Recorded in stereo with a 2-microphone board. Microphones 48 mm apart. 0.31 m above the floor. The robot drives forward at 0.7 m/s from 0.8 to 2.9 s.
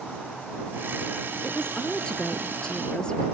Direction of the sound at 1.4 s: 20° left (ahead or behind).